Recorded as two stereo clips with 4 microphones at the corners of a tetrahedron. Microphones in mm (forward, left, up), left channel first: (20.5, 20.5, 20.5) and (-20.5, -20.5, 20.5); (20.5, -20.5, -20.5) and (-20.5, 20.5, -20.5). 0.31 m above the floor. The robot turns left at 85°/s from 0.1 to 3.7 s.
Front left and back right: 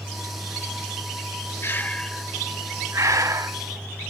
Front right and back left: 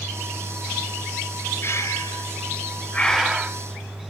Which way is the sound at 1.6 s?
Straight ahead.